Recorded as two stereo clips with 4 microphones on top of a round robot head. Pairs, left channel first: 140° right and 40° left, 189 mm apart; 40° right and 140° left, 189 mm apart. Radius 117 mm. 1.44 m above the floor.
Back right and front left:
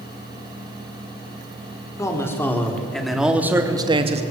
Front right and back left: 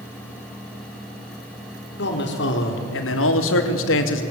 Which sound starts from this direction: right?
A man speaking, at 2.0 s.